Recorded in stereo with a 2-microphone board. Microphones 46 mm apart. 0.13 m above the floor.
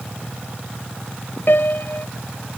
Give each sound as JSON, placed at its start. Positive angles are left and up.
{"t": 1.5, "sound": "a piano", "side_deg": 50}